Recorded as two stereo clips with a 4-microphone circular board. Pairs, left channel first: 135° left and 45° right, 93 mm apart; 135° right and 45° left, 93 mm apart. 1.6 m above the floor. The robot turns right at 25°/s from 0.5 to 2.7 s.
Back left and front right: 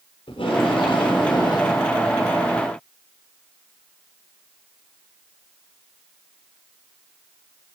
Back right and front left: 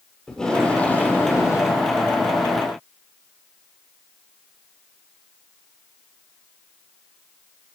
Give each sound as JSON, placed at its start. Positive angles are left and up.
{"t": 0.3, "sound": "tape being pulled", "azimuth_deg": 140, "distance_m": 6.0}